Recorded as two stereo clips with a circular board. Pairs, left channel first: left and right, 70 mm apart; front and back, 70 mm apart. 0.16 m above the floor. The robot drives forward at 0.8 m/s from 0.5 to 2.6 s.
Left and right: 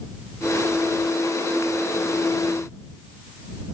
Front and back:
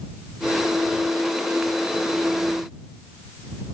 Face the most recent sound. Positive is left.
No sound to turn to.